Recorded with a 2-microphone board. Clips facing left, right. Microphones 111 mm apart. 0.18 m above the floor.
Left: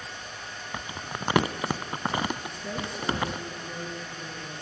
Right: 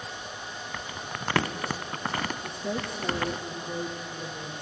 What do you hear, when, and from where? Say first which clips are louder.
0.7 s crumpling: left 3 dB; 15° left (ahead or behind), 0.5 m
2.4 s a woman speaking: right 2 dB; 25° right (ahead or behind), 3 m